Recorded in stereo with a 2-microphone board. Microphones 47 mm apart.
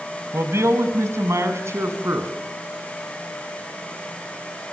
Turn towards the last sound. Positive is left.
turn(degrees=-70)  # may be behind; listen again after turning